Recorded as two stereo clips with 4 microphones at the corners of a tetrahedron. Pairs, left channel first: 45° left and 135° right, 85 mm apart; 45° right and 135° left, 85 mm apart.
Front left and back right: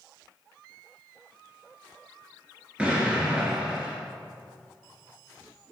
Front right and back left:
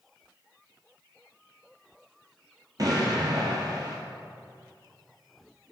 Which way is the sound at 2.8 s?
150° left.